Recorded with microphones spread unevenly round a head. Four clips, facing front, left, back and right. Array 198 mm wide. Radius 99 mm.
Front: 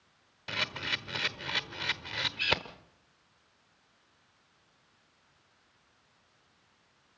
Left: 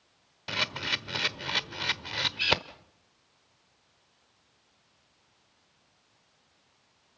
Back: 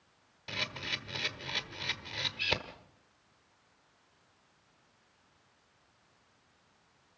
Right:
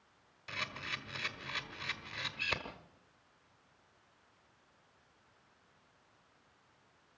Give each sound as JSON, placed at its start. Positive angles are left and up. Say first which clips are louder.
{"t": 0.5, "sound": "a camera shutter", "louder": "left 9 dB, front 4 dB", "azimuth_deg": 75, "distance_m": 1.3}